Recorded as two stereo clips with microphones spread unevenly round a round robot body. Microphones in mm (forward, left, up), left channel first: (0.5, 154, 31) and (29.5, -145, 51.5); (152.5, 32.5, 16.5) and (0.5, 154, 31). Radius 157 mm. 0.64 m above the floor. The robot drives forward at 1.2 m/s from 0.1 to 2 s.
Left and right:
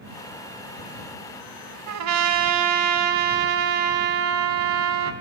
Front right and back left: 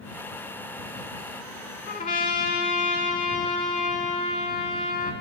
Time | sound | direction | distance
1.9 | a trumpet | 75° right | 0.7 m